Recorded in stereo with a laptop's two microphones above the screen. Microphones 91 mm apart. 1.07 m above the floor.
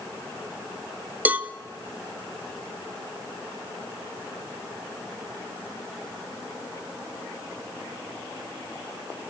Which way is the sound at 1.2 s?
15° right (ahead or behind).